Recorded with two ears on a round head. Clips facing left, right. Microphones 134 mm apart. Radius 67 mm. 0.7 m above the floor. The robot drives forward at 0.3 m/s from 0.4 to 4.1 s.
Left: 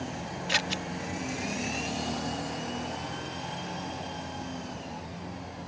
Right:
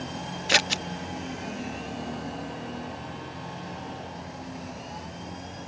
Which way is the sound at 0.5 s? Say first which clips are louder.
Right 6 dB; 60° right (ahead or behind).